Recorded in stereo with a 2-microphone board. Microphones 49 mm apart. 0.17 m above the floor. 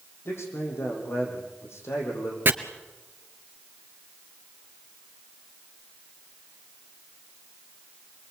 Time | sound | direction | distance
0.2 | a man speaking | 65° left (ahead or behind) | 7.5 m
2.5 | chopping | 45° right (ahead or behind) | 1.5 m